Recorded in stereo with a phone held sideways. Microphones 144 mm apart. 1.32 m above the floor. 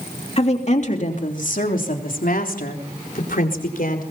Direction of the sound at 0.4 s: 45° left (ahead or behind).